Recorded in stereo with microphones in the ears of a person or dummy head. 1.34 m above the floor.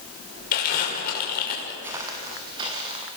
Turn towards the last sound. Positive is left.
turn(degrees=-30)  # may be behind; listen again after turning